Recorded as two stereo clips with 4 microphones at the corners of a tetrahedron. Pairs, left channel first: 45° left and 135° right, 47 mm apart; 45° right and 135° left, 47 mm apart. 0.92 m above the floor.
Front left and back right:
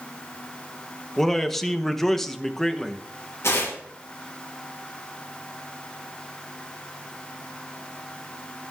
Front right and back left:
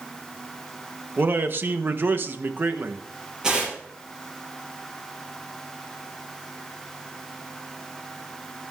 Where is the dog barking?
I don't hear a dog barking.